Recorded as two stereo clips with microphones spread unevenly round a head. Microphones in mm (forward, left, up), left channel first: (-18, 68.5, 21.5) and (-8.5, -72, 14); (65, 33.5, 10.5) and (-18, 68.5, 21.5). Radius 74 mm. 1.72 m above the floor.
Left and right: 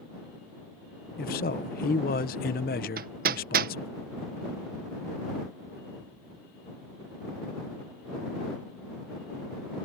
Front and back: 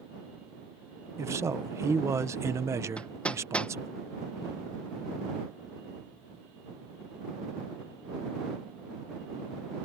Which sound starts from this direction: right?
Hammering, at 3.0 s.